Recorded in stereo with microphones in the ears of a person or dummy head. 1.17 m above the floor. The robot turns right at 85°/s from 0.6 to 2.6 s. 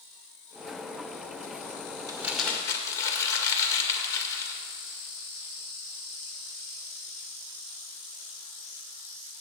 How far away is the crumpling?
About 1.8 m.